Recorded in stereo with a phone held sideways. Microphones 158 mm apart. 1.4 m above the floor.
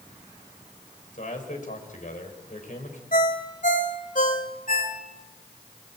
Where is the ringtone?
55° left (ahead or behind), 2.5 m.